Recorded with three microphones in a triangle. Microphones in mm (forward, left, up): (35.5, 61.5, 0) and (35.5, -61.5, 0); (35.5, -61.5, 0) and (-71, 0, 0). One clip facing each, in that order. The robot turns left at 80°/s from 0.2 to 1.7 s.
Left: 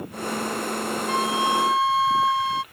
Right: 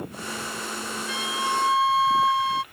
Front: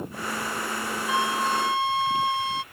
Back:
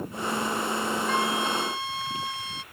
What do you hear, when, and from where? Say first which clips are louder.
1.1 s a flute: left 5 dB, front 5 dB; 50° left; by 2.6 s straight ahead